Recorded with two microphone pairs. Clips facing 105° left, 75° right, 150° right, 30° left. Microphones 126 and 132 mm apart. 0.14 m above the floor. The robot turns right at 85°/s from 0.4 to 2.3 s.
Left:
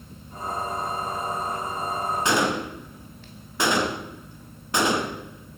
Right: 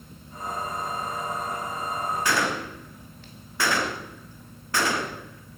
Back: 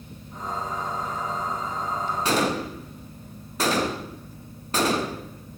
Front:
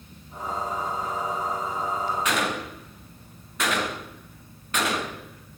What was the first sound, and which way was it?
A gunshot, 165° left.